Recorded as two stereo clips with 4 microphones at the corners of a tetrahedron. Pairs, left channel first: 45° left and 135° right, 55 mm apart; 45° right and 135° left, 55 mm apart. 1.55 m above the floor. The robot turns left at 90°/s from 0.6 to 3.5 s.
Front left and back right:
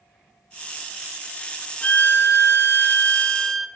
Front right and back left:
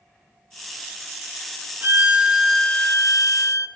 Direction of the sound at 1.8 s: 105° left.